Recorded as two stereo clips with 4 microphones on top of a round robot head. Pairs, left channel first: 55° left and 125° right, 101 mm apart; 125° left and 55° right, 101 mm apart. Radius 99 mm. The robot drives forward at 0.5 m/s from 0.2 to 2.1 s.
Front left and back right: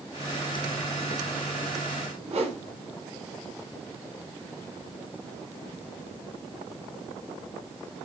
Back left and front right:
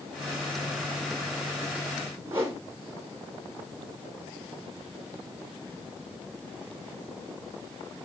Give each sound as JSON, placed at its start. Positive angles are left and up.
{"t": 2.3, "sound": "a whoosh", "azimuth_deg": -120, "distance_m": 1.2}